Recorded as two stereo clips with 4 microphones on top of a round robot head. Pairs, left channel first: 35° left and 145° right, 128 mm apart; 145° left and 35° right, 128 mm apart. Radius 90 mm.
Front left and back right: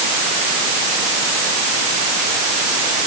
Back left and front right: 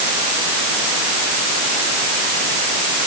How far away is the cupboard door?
I don't hear a cupboard door.